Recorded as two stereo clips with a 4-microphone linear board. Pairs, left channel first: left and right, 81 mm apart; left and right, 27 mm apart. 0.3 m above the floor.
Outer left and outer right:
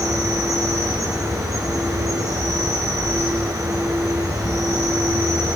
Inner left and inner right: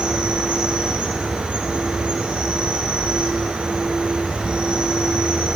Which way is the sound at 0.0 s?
45° right (ahead or behind).